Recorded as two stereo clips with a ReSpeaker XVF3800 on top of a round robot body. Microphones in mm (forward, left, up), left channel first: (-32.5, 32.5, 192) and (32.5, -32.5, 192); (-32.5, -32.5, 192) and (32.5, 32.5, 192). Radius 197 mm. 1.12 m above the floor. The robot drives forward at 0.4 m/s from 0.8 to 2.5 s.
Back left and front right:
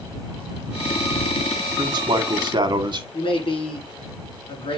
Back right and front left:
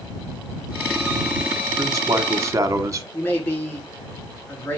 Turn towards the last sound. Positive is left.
turn(degrees=160)